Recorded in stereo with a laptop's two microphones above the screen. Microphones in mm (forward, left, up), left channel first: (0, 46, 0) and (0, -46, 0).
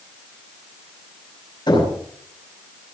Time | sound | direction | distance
1.7 | knocking | 55° left (ahead or behind) | 6 m